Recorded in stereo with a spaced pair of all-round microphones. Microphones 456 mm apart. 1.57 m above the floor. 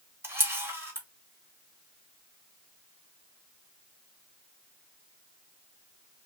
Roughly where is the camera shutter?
Centre.